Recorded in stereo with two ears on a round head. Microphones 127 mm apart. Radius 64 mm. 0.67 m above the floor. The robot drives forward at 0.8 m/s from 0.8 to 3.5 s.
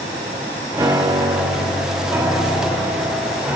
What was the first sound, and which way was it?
A piano, 25° right (ahead or behind).